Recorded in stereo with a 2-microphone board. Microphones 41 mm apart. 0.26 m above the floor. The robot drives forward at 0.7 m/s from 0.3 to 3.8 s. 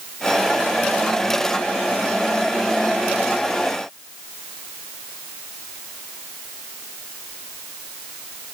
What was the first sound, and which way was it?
Only background noise.